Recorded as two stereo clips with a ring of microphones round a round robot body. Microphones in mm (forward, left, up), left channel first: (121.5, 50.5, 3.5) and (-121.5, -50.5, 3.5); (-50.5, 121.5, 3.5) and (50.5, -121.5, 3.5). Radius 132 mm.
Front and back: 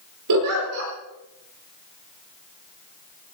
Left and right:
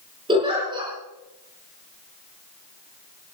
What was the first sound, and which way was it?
A giggle, 140° right.